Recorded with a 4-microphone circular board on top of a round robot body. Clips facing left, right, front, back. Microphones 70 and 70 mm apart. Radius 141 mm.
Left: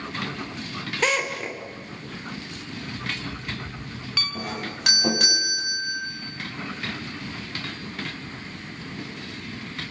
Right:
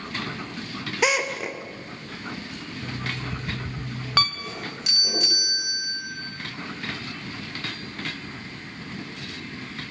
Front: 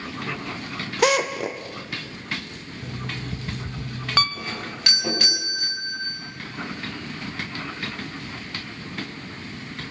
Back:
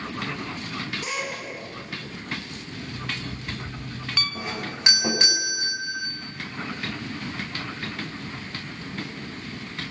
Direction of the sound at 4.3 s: 115° left.